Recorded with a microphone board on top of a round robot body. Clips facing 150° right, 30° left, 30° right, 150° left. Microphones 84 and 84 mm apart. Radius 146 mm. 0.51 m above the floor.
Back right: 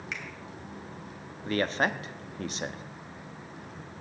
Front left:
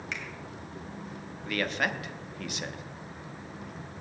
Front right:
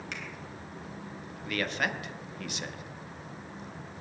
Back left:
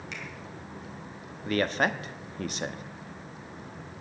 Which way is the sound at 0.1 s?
65° right.